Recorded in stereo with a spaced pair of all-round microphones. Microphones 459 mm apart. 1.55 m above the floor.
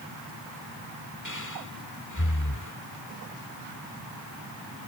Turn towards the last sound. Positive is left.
turn(degrees=40)  # may be behind; listen again after turning